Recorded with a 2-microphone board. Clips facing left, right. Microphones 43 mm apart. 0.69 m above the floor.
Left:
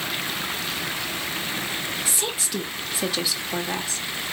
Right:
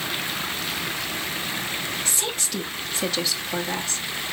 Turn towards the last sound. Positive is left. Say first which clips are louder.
# even
turn(degrees=10)  # may be behind; listen again after turning